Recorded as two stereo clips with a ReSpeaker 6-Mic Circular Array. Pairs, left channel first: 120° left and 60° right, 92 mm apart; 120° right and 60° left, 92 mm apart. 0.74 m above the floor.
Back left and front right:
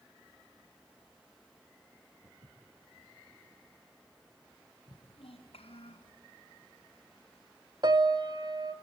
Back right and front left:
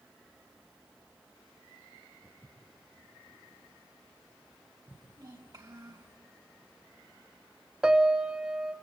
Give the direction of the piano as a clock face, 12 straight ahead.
1 o'clock.